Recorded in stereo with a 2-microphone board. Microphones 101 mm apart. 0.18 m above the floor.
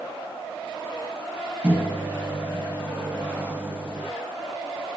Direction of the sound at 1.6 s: 15° right (ahead or behind).